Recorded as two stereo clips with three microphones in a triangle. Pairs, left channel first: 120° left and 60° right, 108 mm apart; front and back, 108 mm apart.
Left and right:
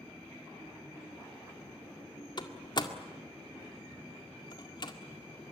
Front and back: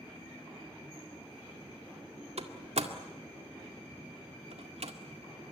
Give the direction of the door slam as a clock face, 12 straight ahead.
6 o'clock.